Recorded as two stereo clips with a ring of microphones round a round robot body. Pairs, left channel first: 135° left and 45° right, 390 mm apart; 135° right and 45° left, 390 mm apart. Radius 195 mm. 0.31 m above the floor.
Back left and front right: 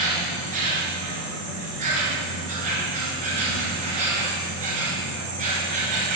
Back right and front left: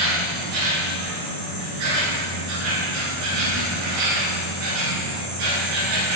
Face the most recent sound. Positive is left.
turn(degrees=25)